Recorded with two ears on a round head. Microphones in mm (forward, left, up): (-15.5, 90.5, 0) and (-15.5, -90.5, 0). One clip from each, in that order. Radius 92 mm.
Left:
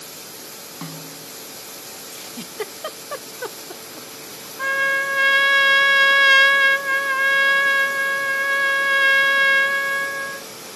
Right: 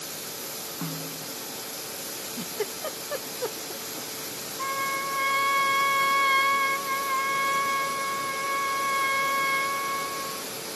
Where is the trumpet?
75° left (ahead or behind).